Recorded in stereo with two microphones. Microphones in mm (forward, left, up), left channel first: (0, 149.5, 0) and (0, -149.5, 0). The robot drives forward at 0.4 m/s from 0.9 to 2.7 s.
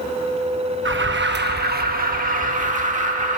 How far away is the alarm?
About 1.0 m.